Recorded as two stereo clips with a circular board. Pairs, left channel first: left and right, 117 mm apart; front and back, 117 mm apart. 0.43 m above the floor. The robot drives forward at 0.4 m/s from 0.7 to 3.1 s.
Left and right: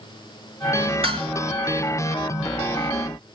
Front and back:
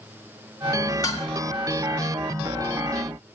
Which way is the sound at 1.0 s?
55° right.